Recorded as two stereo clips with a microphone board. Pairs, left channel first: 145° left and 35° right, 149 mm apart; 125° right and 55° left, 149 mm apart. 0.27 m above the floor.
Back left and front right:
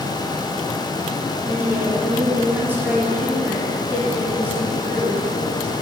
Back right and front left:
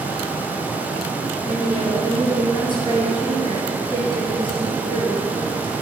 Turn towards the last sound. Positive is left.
turn(degrees=-105)